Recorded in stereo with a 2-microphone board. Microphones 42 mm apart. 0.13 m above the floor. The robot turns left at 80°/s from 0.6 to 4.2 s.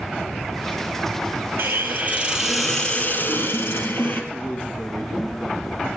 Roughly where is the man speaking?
Left.